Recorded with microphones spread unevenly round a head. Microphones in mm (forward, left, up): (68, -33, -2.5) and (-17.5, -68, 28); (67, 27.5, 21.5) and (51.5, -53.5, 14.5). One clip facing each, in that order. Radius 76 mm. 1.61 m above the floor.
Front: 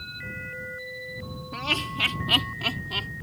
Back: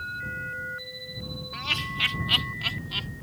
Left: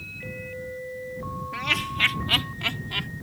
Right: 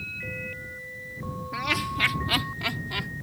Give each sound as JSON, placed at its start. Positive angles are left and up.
{"t": 1.5, "sound": "laughter", "azimuth_deg": -20}